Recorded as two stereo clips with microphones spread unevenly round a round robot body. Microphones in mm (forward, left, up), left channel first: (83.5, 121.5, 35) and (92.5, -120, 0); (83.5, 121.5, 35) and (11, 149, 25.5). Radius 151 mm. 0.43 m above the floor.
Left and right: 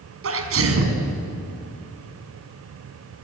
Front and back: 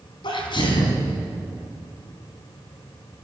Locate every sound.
0.2 s a sneeze: 65° right, 4 m